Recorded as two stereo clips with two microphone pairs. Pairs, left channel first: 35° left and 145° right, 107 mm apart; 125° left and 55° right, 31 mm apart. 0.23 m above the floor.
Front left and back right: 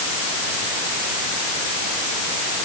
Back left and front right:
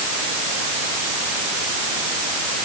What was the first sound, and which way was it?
Only background noise.